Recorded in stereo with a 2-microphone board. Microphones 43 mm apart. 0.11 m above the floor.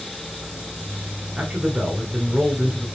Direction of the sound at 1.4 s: 25° right (ahead or behind).